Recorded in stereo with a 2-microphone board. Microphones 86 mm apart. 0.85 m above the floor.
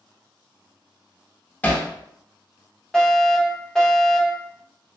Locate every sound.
1.6 s hammering: 20° left (ahead or behind), 0.7 m
2.9 s a fire alarm: 5° left (ahead or behind), 1.4 m